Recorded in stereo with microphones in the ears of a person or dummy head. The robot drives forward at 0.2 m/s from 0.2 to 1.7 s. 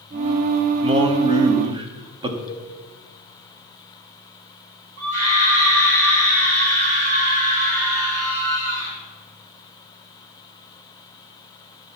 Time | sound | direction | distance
0.8 | a man speaking | 30° right (ahead or behind) | 1.0 m
2.5 | a cowbell | 20° left (ahead or behind) | 1.0 m
5.0 | a scream | 50° right (ahead or behind) | 3 m